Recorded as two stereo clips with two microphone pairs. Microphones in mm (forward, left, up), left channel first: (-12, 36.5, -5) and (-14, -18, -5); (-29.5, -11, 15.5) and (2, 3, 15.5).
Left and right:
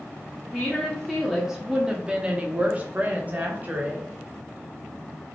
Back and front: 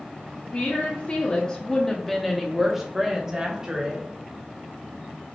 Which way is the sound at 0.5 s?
170° left.